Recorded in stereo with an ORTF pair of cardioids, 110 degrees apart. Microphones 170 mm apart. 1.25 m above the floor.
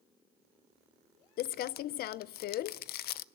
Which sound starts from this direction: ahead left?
Crumpling, at 1.4 s.